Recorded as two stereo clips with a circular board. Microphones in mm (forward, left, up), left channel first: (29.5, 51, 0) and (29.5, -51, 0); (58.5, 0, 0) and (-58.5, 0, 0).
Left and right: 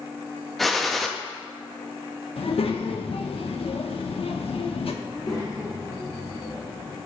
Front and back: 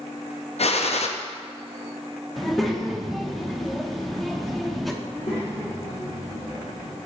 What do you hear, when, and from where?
0.6 s a gunshot: straight ahead, 0.5 m
2.4 s a child speaking: 90° left, 0.8 m
5.0 s a child speaking: 40° left, 1.8 m